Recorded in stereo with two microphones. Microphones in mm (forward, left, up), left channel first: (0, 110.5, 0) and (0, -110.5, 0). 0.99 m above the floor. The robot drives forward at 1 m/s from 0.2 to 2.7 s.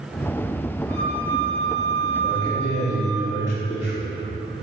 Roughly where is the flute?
Centre.